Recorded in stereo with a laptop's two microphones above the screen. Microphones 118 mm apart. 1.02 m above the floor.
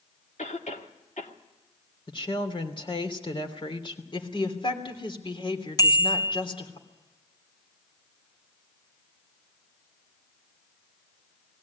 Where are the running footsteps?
I don't hear running footsteps.